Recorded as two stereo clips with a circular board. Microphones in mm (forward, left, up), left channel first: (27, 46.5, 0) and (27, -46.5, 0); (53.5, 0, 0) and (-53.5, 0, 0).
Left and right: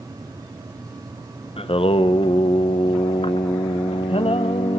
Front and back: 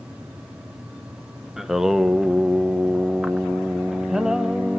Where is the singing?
95° left, 0.7 m.